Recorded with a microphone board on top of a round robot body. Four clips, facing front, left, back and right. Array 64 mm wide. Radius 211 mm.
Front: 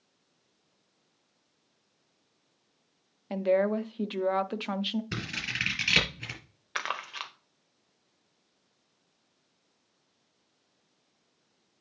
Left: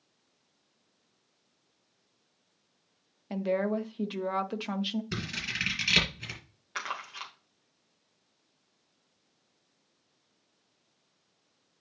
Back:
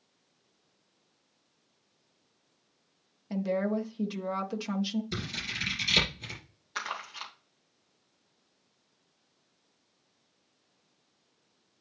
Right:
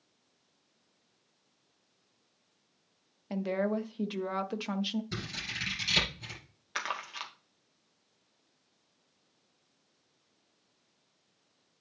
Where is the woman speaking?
5° left, 1.1 m.